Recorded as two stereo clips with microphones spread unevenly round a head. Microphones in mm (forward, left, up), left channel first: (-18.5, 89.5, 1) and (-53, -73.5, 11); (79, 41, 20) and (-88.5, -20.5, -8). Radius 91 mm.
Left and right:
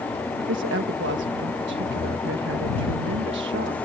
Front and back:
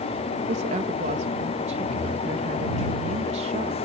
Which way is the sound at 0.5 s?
110° right.